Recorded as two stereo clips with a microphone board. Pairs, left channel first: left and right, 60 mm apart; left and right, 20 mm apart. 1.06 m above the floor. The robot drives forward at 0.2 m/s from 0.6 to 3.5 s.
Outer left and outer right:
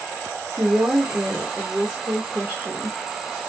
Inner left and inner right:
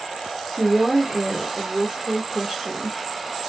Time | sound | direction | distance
0.5 | a woman speaking | 30° right (ahead or behind) | 1.5 m